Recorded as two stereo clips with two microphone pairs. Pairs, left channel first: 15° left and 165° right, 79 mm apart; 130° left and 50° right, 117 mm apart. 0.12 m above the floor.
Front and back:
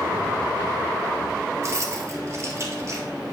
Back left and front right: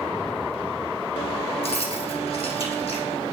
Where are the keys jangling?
150° left, 1.8 m.